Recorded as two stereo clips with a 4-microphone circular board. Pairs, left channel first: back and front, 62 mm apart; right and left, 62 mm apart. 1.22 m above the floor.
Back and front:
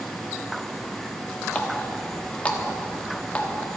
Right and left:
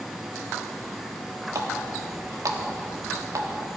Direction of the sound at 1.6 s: 110° left.